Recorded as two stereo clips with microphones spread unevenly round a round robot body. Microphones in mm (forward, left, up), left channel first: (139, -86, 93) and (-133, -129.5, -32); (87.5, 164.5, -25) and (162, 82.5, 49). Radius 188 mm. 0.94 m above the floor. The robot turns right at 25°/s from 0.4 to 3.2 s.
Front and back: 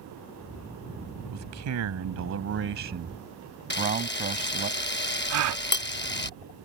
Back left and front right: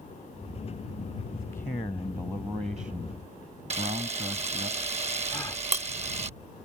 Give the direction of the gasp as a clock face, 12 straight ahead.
4 o'clock.